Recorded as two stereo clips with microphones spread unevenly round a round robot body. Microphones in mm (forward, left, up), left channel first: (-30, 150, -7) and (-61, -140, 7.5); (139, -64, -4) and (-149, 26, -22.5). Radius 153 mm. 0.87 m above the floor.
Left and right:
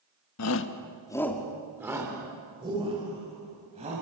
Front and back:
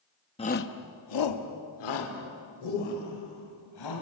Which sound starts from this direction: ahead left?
A shout, at 0.4 s.